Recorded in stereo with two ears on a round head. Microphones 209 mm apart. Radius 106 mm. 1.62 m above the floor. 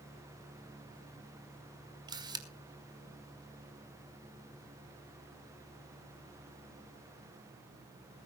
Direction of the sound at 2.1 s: 20° right (ahead or behind).